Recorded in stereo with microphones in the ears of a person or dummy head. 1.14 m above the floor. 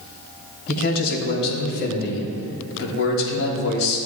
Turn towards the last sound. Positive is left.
turn(degrees=80)